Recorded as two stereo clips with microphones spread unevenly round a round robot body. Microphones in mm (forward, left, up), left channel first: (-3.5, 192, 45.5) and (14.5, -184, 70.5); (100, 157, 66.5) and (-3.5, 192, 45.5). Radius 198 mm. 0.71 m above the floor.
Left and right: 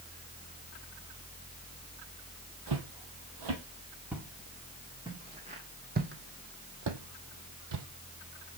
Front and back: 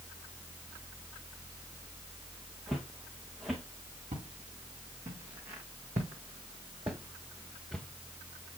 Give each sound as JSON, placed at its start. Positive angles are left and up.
{"t": 2.7, "sound": "footsteps", "azimuth_deg": -115, "distance_m": 1.5}
{"t": 4.1, "sound": "footsteps", "azimuth_deg": -170, "distance_m": 2.5}